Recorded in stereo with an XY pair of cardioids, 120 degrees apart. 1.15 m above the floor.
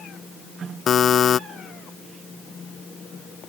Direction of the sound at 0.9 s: 45° left.